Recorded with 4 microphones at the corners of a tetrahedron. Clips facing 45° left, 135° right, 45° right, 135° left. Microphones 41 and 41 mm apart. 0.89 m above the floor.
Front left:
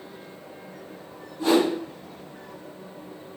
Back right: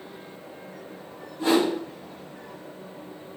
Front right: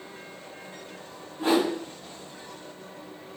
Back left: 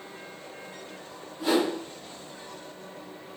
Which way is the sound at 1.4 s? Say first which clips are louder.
Front left 1 dB, front right 1 dB; 90° right.